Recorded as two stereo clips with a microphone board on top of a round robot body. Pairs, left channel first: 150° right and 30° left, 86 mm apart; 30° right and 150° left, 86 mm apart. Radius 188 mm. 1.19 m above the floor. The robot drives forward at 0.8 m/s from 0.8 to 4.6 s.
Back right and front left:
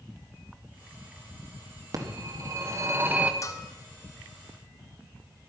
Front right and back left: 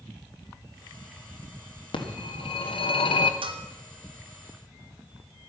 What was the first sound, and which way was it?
A phone ringing, 15° right.